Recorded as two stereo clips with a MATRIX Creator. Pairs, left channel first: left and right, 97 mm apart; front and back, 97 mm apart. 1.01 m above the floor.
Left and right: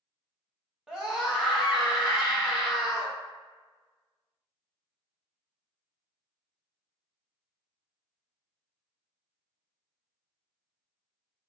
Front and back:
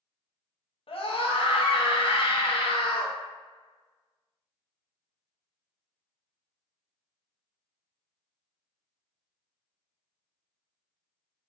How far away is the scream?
About 1.1 m.